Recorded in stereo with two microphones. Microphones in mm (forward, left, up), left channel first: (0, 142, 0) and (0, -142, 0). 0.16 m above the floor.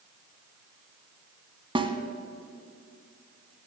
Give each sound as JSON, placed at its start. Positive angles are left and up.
{"t": 1.8, "sound": "a snare drum", "side_deg": -20, "distance_m": 0.9}